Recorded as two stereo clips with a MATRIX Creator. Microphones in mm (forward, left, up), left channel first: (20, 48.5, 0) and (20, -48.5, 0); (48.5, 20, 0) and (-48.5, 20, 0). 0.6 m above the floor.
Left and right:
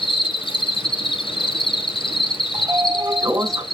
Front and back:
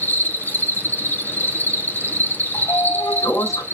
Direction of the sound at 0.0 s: 70° left.